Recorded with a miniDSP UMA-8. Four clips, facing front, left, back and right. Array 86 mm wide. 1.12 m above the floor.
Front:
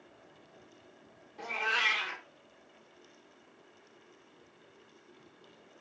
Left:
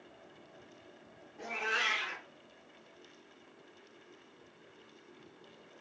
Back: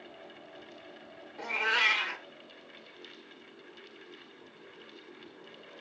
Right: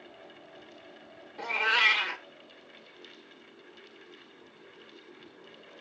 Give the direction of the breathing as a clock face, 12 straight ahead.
I don't hear breathing.